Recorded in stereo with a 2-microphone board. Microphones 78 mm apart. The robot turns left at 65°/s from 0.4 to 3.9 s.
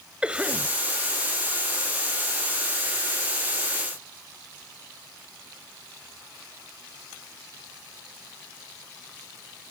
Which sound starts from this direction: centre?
A cough, at 0.2 s.